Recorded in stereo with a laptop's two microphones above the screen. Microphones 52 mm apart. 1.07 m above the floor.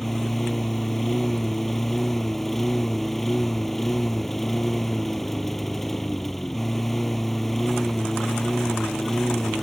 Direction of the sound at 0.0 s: 5° left (ahead or behind).